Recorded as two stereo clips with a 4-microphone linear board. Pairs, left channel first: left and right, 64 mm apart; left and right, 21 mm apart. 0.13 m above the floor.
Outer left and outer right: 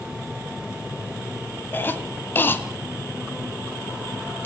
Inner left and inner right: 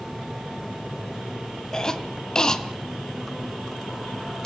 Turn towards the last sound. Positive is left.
turn(degrees=35)  # may be behind; listen again after turning